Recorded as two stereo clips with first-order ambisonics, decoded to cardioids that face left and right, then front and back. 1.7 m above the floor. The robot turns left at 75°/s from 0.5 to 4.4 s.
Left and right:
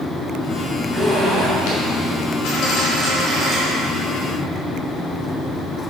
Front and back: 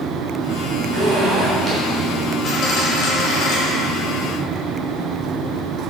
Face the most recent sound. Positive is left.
turn(degrees=-90)